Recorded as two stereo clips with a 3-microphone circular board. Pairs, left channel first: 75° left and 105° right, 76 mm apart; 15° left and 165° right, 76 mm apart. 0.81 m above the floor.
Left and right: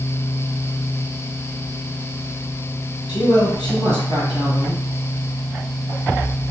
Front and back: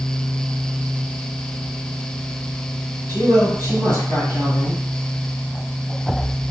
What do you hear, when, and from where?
3.1 s a man speaking: 70° left, 1.7 m